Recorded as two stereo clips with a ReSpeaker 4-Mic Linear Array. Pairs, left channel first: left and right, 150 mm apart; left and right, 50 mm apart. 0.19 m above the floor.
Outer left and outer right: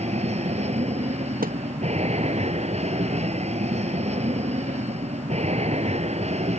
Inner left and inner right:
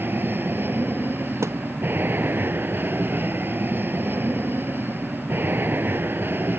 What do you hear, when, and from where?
0.0 s an aircraft: 45° right (ahead or behind)
1.4 s a thud: 70° right (ahead or behind)